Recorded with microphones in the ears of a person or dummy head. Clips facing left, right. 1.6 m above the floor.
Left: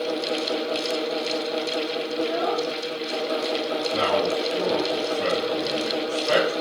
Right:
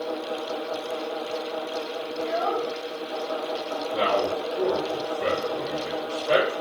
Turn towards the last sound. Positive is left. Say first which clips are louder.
# even
turn(degrees=70)  # may be behind; listen again after turning